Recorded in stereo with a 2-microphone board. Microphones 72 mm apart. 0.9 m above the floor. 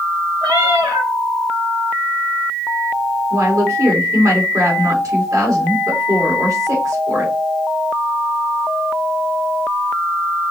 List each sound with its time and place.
0.4 s a cat meowing: 65° right (ahead or behind), 1.9 m
3.3 s a woman speaking: 50° right (ahead or behind), 2 m